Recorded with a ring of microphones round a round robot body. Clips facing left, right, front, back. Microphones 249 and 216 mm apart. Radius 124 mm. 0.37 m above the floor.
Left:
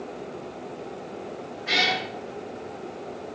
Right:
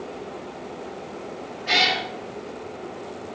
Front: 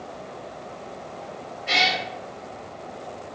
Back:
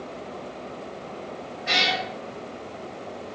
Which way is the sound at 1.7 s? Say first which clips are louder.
Right 2 dB, front 1 dB; 175° left.